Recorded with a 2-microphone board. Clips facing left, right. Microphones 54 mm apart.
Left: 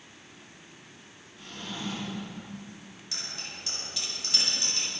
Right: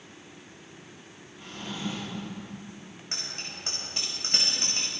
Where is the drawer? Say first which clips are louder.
Right 2 dB; 20° right (ahead or behind), 6.5 m.